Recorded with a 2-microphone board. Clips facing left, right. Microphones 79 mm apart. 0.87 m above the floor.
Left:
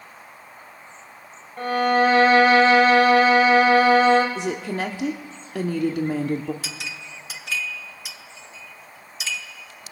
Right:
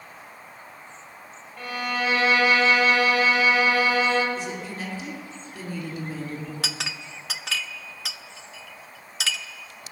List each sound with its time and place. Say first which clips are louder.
1.6 s a violin: left 10 dB; 45° left (ahead or behind), 2.5 m
4.3 s a woman speaking: left 6 dB; 80° left, 1.7 m
6.6 s a clink: right 2 dB; 70° right (ahead or behind), 0.9 m